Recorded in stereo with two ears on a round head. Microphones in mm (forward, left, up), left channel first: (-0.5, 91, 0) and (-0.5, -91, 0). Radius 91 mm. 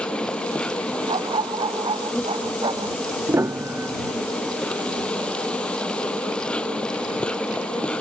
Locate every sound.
0.0 s an insect: 5° left (ahead or behind)
1.1 s a dog barking: 20° right (ahead or behind)
3.3 s a piano: 10° right (ahead or behind)